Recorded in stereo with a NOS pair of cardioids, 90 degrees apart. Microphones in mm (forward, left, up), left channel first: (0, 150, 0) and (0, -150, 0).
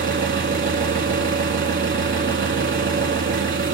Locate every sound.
0.0 s an engine running: 40° right, 2 m